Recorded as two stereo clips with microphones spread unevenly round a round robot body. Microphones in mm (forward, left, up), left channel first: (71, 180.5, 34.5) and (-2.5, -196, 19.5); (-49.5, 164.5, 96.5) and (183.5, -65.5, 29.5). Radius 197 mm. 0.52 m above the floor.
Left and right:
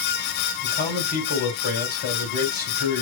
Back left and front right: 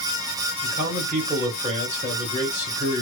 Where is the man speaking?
15° left, 2.5 m.